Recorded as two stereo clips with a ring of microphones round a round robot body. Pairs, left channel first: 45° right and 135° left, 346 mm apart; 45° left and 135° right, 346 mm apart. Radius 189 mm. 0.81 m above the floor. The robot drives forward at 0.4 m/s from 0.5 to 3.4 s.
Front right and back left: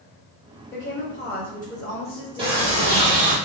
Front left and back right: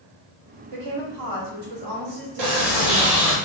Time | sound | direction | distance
0.7 | a woman speaking | 100° right | 1.8 m
2.4 | a sliding door | 150° right | 1.3 m